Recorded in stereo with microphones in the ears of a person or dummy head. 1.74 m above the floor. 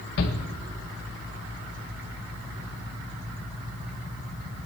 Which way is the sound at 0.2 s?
65° left (ahead or behind).